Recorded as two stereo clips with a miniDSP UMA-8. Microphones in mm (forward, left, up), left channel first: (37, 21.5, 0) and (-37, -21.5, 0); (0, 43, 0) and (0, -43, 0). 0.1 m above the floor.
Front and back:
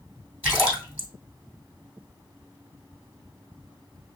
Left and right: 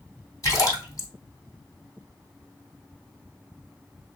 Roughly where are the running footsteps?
No running footsteps in this recording.